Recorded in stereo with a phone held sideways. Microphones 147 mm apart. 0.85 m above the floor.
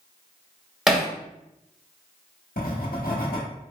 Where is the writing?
85° left, 1.1 m.